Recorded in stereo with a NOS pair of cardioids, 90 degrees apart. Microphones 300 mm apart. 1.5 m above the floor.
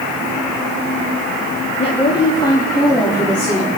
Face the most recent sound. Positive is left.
turn(degrees=0)